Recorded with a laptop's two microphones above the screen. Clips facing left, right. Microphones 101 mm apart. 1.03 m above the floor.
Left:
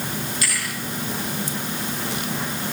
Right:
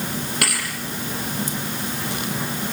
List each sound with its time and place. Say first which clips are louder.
0.4 s a thud: right 3 dB; 70° right (ahead or behind), 6.5 m